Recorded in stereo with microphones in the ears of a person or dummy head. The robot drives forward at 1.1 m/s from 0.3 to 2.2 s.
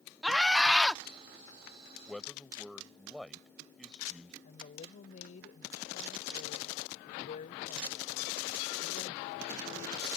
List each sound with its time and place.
0.2 s a scream: centre (ahead or behind)
2.1 s a man speaking: centre (ahead or behind)
4.4 s a woman speaking: 45° left (ahead or behind)